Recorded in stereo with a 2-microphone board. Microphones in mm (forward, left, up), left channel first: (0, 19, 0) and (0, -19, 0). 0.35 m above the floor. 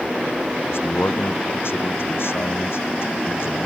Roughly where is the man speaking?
Left.